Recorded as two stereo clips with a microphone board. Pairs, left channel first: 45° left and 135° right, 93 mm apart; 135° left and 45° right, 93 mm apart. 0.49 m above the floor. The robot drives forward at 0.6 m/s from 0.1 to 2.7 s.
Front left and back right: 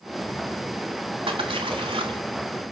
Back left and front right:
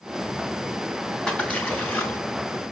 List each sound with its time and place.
1.3 s a splash: 145° right, 1.2 m; by 2.2 s 155° right, 1.7 m